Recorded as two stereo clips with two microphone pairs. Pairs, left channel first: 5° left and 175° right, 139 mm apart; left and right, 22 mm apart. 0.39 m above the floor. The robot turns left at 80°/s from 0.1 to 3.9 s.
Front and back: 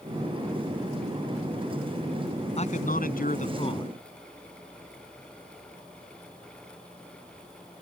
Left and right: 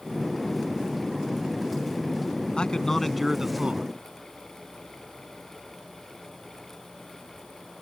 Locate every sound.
2.6 s a man speaking: 45° left; by 3.9 s 60° right